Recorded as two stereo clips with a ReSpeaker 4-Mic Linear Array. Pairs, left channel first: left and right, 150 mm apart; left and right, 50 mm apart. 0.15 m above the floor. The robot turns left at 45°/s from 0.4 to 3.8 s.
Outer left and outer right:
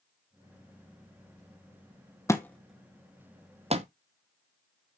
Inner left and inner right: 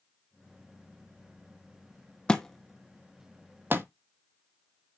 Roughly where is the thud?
Centre.